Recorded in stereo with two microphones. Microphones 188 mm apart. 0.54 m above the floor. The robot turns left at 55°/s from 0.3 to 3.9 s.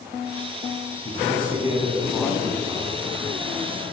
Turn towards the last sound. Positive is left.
turn(degrees=-90)